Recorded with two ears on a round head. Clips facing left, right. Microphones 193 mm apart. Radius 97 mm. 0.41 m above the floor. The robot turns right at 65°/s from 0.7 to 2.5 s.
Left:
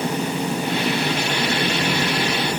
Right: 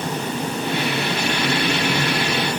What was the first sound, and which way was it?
Only background noise.